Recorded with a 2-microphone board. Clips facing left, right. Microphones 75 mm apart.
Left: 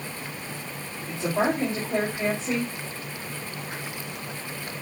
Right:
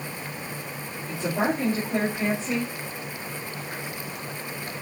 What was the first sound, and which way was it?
A woman speaking, 25° left (ahead or behind).